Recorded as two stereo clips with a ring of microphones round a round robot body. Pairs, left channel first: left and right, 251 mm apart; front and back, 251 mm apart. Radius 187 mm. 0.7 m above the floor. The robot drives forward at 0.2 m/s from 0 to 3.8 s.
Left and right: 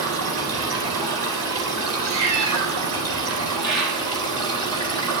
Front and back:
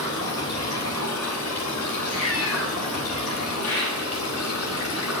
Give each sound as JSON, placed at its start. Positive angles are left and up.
{"t": 0.0, "sound": "running water", "azimuth_deg": -80, "distance_m": 3.0}
{"t": 2.0, "sound": "a cat meowing", "azimuth_deg": -90, "distance_m": 1.8}
{"t": 3.6, "sound": "a bird", "azimuth_deg": -100, "distance_m": 5.0}